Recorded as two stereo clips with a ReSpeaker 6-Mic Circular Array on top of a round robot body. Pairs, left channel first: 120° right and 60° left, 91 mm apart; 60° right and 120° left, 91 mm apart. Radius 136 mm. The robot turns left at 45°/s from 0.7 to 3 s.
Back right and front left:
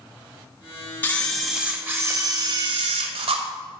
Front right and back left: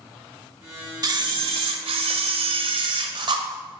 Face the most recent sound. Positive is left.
turn(degrees=80)